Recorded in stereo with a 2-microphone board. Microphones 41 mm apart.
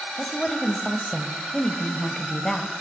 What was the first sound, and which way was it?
A woman speaking, 15° left (ahead or behind).